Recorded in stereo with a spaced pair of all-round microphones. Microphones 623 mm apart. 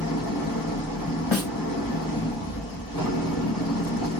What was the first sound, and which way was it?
An engine running, 30° left (ahead or behind).